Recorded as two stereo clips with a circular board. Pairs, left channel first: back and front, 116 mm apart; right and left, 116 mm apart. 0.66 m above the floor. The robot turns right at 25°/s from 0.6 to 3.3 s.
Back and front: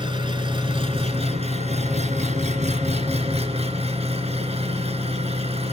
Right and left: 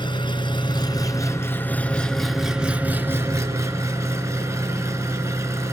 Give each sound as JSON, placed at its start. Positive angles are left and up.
{"t": 0.0, "sound": "an engine running", "azimuth_deg": -45, "distance_m": 2.5}